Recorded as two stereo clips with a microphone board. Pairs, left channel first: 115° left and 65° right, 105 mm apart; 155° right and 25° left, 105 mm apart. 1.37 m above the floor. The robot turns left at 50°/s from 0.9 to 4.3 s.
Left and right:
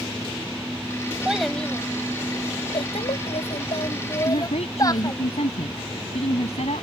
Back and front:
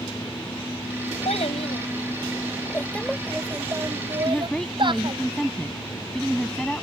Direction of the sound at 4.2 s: 125° left.